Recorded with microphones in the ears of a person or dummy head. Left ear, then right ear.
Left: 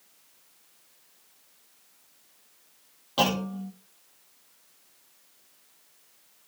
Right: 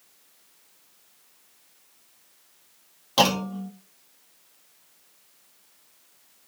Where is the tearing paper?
No tearing paper in this recording.